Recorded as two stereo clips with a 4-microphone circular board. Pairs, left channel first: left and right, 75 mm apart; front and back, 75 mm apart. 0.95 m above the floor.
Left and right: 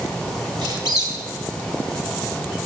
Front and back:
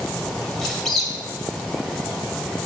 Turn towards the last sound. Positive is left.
turn(degrees=-85)